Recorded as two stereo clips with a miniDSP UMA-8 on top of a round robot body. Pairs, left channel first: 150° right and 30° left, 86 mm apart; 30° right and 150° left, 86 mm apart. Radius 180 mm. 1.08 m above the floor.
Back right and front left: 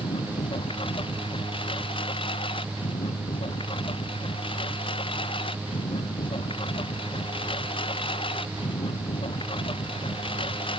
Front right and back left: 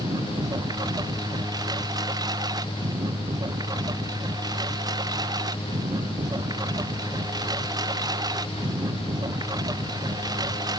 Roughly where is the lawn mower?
Behind.